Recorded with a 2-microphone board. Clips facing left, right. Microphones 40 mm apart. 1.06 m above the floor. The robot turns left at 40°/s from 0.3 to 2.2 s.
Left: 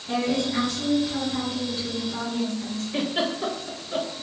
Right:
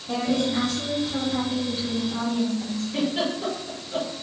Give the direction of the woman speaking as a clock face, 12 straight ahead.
11 o'clock.